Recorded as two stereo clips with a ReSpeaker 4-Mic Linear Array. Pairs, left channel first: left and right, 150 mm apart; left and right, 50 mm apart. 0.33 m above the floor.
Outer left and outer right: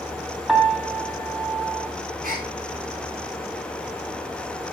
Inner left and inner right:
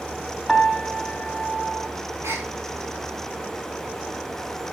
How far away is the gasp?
About 5 m.